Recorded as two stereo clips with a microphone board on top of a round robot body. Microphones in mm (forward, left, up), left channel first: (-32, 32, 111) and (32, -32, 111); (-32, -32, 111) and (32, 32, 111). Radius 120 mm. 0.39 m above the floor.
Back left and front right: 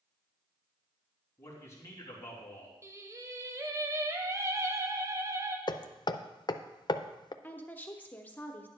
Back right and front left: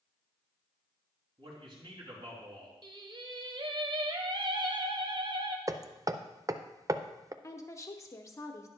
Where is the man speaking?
75° left, 3.5 m.